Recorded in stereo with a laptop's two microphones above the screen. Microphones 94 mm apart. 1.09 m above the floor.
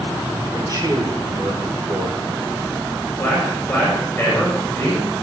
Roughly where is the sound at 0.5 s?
Right.